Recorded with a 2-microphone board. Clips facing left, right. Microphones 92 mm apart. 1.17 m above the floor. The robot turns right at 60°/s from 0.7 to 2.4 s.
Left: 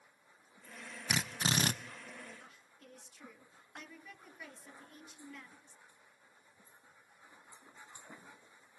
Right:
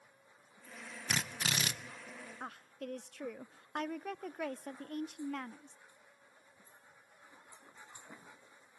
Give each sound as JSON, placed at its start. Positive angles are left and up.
{"t": 1.1, "sound": "a drill", "azimuth_deg": 5, "distance_m": 0.6}
{"t": 2.4, "sound": "a woman speaking", "side_deg": -65, "distance_m": 0.5}